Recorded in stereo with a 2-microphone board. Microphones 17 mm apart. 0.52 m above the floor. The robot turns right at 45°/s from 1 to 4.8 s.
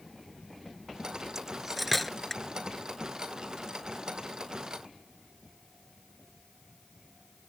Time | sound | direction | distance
1.4 | cutlery clinking | 30° right (ahead or behind) | ?